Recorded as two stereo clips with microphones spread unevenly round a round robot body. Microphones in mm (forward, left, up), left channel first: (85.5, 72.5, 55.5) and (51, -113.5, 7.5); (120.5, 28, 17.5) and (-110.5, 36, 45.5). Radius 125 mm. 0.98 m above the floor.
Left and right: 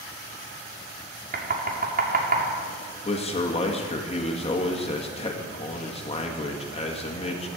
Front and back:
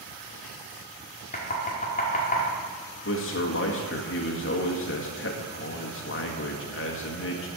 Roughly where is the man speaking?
Ahead.